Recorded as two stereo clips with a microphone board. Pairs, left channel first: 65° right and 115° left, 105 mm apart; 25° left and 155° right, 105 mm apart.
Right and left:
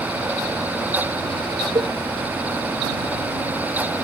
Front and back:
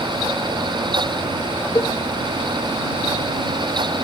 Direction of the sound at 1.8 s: 80° left.